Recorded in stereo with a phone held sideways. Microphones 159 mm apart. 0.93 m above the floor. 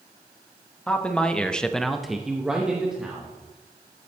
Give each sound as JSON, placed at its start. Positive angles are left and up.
{"t": 0.9, "sound": "a man speaking", "side_deg": 5, "distance_m": 1.4}